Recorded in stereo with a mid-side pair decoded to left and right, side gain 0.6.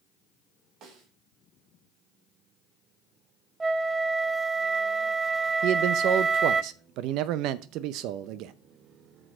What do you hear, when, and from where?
0.8 s a snare drum: 60° right, 2.5 m
3.6 s a flute: 20° right, 0.6 m
5.6 s a man speaking: 65° right, 0.5 m